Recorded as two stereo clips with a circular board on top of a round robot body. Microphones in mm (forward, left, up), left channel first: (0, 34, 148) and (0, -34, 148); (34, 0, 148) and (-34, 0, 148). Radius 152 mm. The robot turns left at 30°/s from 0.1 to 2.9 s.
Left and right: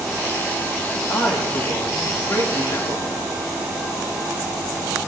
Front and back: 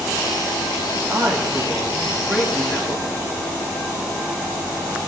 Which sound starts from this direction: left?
A man speaking, at 1.1 s.